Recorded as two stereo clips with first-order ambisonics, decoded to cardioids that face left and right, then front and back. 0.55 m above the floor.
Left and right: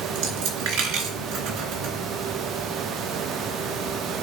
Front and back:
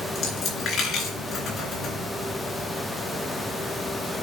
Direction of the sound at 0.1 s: 65° right.